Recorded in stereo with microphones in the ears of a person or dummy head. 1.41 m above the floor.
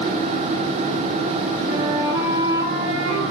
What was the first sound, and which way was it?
A flute, 15° right (ahead or behind).